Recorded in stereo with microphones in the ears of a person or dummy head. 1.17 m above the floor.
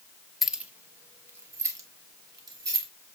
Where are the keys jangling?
Centre (ahead or behind), 0.5 m; by 2.9 s 25° right (ahead or behind), 1.9 m.